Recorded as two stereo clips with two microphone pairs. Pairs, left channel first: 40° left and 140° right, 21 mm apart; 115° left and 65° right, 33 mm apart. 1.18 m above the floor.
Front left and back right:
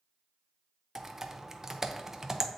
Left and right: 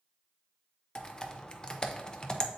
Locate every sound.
0.9 s typing on a keyboard: 165° left, 0.6 m